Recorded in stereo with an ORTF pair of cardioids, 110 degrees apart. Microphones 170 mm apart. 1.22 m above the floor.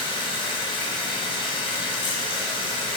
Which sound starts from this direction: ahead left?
Running water, at 0.0 s.